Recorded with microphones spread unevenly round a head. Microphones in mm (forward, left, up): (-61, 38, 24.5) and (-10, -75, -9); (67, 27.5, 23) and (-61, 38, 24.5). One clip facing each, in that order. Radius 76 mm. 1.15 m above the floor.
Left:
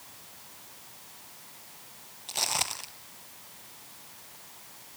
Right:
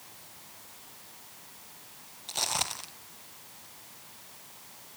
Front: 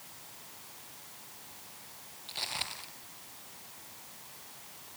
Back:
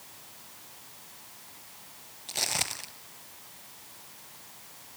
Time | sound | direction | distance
2.3 | footsteps | 175° right | 1.4 m